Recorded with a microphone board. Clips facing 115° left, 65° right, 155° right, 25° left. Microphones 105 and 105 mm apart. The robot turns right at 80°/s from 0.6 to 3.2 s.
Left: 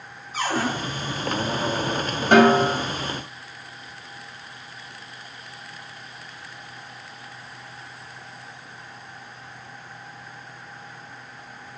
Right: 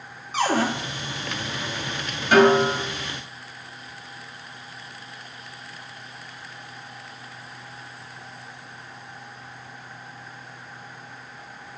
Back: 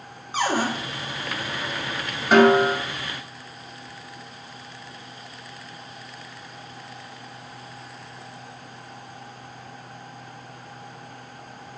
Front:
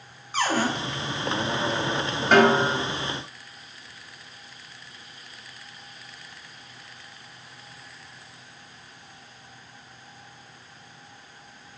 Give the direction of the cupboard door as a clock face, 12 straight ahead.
3 o'clock.